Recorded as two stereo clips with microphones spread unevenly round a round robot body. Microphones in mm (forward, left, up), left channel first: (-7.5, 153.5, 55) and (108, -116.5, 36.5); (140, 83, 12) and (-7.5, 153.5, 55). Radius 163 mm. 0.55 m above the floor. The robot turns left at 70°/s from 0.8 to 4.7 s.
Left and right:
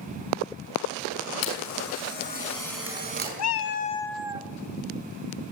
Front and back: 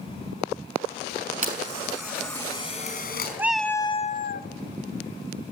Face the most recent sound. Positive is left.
turn(degrees=-15)